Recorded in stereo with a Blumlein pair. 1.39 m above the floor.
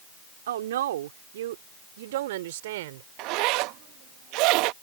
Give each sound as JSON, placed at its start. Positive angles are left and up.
{"t": 0.5, "sound": "a woman speaking", "azimuth_deg": -60}
{"t": 3.2, "sound": "a zipper", "azimuth_deg": -40}